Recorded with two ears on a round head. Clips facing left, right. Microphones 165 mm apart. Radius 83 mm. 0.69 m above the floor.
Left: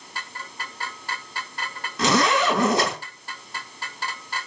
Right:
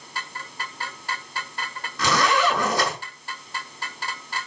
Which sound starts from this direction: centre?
A zipper, at 2.0 s.